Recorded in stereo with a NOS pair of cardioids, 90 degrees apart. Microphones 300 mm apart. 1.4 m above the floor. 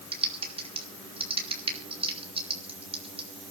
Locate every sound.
0.1 s typing on a keyboard: 20° right, 4.5 m